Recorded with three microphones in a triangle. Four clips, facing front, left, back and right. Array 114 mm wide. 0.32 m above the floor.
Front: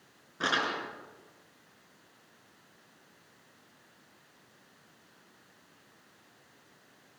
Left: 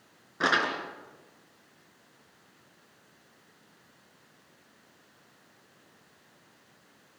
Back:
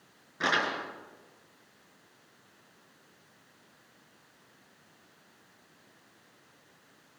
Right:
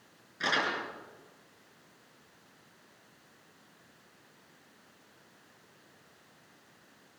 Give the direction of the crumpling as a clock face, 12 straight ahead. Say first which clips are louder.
Left 4 dB, back 2 dB; 9 o'clock.